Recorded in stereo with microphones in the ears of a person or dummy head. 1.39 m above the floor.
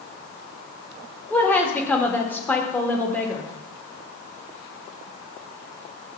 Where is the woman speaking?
10° left (ahead or behind), 2 m.